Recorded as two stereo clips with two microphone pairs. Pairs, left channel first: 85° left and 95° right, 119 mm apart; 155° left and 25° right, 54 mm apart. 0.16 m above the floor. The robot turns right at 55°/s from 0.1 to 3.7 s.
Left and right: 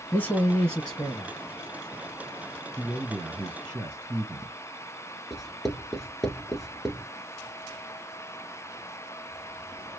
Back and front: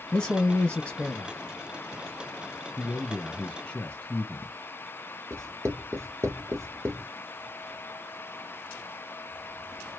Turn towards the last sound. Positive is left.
turn(degrees=-5)